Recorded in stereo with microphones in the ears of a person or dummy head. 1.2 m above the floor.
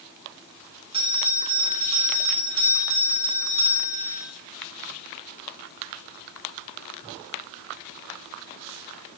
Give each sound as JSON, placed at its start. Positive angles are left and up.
{"t": 0.9, "sound": "a bell", "side_deg": -30, "distance_m": 3.5}